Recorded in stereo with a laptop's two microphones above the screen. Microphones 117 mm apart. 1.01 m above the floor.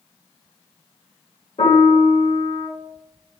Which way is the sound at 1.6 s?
60° left (ahead or behind).